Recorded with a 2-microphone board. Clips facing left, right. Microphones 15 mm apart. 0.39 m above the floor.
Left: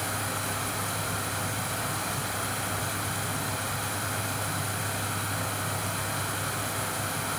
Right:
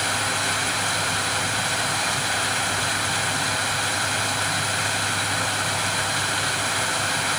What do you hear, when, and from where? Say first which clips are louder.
0.0 s running water: right 8 dB; 50° right (ahead or behind), 1.3 m